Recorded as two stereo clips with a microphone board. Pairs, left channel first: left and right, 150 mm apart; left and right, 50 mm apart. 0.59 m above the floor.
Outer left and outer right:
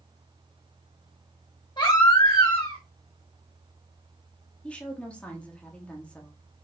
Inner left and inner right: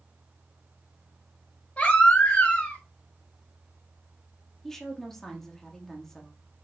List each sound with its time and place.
1.8 s a baby crying: 30° left (ahead or behind), 1.3 m
4.6 s a woman speaking: 10° left (ahead or behind), 0.9 m